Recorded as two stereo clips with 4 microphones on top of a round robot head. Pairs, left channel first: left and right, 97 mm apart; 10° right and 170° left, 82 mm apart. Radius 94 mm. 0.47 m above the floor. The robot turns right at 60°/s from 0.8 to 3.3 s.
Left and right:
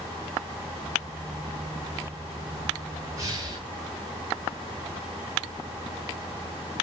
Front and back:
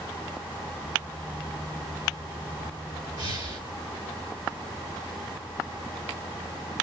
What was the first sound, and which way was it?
Breathing, 150° right.